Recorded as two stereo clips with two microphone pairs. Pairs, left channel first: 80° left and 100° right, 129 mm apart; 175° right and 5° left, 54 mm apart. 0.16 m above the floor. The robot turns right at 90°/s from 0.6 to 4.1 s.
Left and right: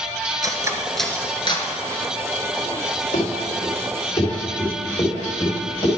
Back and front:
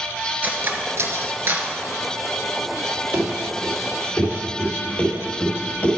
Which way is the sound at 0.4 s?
45° right.